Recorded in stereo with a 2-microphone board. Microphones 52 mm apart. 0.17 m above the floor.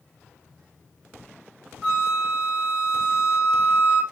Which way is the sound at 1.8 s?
Centre (ahead or behind).